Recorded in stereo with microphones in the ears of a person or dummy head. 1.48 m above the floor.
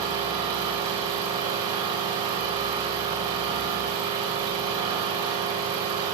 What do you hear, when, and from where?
0.0 s an engine running: 20° right (ahead or behind), 4.5 m